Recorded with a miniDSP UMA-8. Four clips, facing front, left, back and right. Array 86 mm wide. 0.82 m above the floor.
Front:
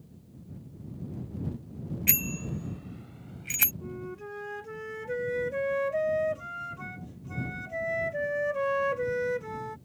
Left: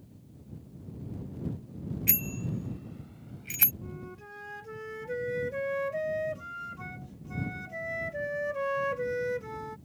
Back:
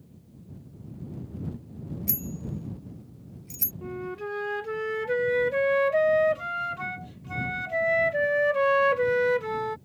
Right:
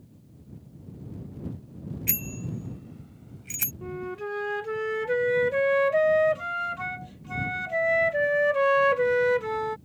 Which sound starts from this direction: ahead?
A bicycle bell, at 2.1 s.